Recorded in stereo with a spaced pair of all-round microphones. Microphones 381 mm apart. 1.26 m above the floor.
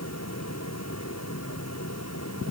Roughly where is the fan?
Left.